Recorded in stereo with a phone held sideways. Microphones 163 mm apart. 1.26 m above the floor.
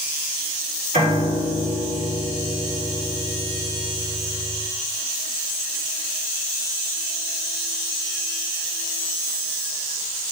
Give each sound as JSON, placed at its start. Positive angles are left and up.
{"t": 0.9, "sound": "a piano", "side_deg": -50, "distance_m": 4.0}